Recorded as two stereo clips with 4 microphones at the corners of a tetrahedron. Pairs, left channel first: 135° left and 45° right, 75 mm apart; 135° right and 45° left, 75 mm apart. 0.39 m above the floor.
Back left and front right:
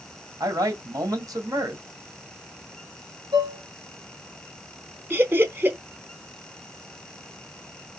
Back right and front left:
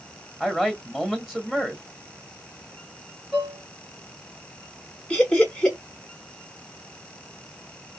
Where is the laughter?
65° right, 1.0 m.